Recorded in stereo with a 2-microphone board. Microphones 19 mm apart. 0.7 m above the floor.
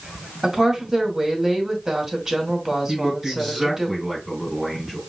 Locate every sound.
0.4 s a woman speaking: 20° right (ahead or behind), 2.5 m
2.9 s a man speaking: 5° right (ahead or behind), 3.5 m